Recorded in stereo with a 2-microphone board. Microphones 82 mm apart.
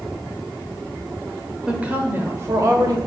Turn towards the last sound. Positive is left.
turn(degrees=-40)  # may be behind; listen again after turning